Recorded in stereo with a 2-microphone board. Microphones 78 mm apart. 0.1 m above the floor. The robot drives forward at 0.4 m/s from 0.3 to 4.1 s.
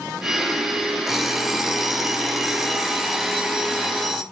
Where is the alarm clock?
5° right (ahead or behind), 0.7 m; by 4.2 s centre (ahead or behind), 1.8 m.